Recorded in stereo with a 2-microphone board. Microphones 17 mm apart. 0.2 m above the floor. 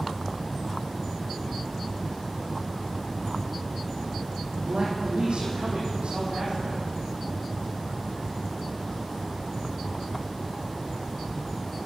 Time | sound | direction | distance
4.6 | a man speaking | 75° right (ahead or behind) | 7.5 m